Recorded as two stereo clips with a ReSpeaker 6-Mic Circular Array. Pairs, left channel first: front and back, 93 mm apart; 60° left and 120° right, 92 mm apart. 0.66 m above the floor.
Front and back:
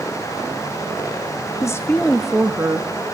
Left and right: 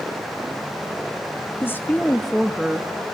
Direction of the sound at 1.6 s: 15° left.